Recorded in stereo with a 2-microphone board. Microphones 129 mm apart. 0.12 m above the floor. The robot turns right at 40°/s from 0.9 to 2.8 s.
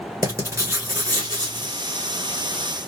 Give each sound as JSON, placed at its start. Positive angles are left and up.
{"t": 0.2, "sound": "writing", "azimuth_deg": -140, "distance_m": 1.6}